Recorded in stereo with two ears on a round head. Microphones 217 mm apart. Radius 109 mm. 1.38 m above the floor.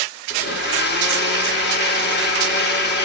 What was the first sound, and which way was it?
A blender, 45° left (ahead or behind).